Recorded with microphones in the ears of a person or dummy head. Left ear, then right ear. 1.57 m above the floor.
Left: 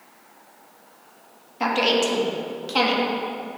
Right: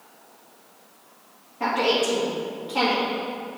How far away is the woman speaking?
About 1.7 m.